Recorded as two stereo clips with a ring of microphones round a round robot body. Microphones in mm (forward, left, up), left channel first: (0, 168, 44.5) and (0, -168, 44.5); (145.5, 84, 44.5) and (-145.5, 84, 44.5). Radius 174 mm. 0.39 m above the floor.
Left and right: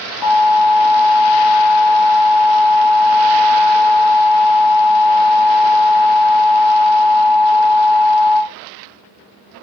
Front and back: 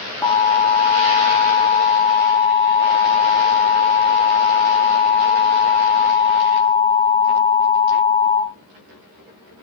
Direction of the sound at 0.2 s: 80° left.